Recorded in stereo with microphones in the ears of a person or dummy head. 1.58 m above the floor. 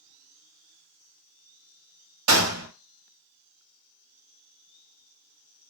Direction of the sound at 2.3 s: 75° right (ahead or behind).